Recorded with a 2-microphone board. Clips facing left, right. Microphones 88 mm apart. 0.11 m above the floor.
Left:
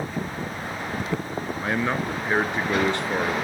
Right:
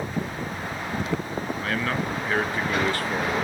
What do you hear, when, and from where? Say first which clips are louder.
1.6 s a man speaking: left 3 dB; 20° left (ahead or behind), 1.1 m